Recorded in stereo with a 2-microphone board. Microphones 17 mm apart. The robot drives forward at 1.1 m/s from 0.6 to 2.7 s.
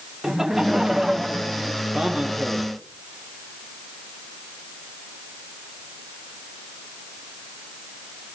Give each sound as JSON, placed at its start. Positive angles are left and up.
{"t": 0.2, "sound": "laughter", "side_deg": -30, "distance_m": 1.3}
{"t": 1.9, "sound": "a man speaking", "side_deg": -65, "distance_m": 4.5}